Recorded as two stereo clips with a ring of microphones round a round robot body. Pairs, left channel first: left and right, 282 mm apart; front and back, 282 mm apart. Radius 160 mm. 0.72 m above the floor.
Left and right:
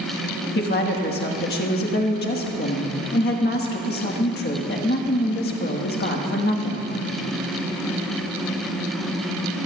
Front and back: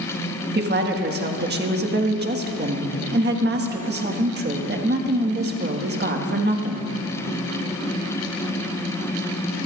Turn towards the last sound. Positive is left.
turn(degrees=135)